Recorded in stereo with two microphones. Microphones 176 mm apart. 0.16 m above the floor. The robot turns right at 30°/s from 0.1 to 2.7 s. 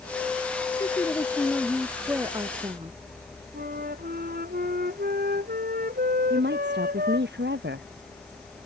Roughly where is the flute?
Right.